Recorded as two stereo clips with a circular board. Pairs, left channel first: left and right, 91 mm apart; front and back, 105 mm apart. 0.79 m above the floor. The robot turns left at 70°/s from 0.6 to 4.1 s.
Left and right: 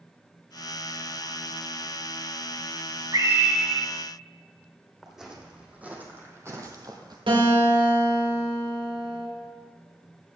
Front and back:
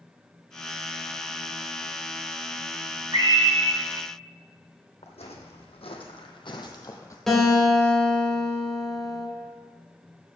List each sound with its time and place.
3.1 s a scream: 130° right, 3 m; by 3.8 s straight behind, 3 m
5.0 s footsteps: 5° right, 2.5 m; by 7.2 s 60° right, 1.5 m
7.3 s a guitar: 85° right, 4 m